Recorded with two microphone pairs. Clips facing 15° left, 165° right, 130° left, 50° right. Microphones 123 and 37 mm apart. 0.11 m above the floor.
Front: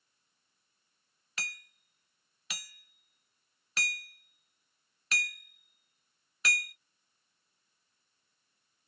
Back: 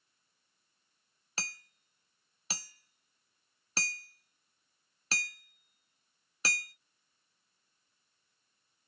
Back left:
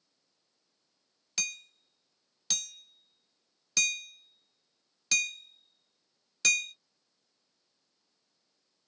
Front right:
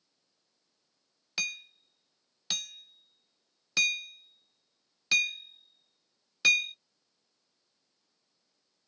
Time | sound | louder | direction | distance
1.4 | hammering | even, front right 3 dB | 115° right | 0.6 m